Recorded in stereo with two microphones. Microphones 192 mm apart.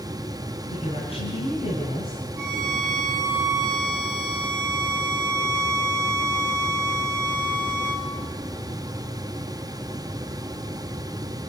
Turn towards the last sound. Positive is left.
turn(degrees=-15)  # may be behind; listen again after turning